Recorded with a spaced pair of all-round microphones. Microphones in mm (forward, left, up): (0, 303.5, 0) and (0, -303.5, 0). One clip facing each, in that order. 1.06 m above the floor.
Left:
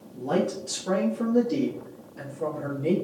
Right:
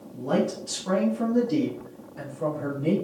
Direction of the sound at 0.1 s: 30° right (ahead or behind).